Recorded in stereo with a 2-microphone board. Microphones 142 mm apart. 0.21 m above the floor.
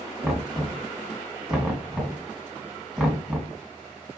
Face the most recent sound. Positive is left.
turn(degrees=-5)  # may be behind; listen again after turning